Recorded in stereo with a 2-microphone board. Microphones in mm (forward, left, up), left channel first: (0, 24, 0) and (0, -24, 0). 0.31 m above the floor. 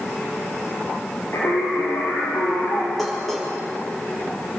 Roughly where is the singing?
Left.